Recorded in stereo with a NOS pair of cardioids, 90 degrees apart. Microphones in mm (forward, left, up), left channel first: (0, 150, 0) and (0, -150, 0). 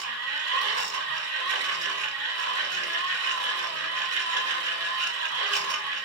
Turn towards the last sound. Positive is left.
turn(degrees=-55)